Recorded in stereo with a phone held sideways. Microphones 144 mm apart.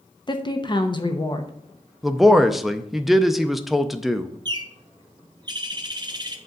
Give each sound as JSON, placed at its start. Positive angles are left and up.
{"t": 0.3, "sound": "a woman speaking", "side_deg": 35, "distance_m": 0.9}
{"t": 2.0, "sound": "a man speaking", "side_deg": 0, "distance_m": 0.5}
{"t": 4.5, "sound": "a bird", "side_deg": -30, "distance_m": 0.8}